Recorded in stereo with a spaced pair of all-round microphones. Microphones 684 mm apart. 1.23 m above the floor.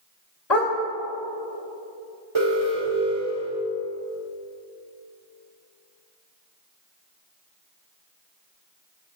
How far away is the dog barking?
About 1.9 m.